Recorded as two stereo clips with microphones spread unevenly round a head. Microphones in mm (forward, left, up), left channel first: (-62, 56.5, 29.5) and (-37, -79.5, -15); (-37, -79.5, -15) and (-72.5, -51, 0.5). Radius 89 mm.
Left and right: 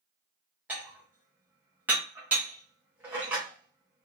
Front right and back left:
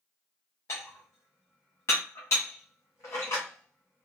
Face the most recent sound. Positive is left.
turn(degrees=0)